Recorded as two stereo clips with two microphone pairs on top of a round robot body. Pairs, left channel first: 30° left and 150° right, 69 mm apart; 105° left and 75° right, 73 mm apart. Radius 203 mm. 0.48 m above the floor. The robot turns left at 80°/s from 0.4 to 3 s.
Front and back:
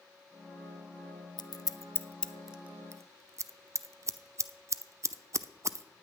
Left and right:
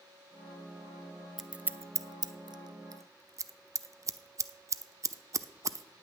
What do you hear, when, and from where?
1.4 s scissors: 20° left, 0.7 m; by 5.8 s 110° right, 0.7 m